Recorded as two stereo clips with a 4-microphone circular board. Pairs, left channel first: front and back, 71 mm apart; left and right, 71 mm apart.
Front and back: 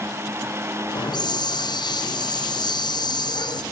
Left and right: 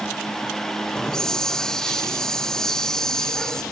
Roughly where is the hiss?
Ahead.